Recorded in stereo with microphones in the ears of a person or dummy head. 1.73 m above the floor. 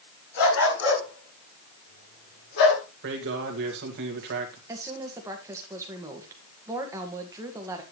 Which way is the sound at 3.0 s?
65° right (ahead or behind).